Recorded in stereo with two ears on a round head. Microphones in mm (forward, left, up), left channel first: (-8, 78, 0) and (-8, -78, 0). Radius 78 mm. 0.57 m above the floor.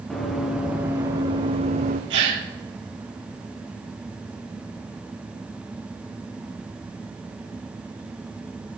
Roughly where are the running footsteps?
Centre.